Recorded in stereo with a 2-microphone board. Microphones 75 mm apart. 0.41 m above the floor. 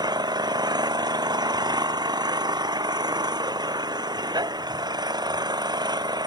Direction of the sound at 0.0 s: 70° right (ahead or behind).